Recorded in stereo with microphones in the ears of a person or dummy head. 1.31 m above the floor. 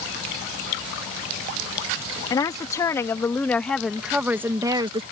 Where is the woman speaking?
20° left (ahead or behind); by 5.0 s 30° right (ahead or behind).